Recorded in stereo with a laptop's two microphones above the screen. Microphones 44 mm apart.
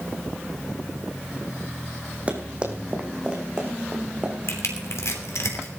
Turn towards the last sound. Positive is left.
turn(degrees=80)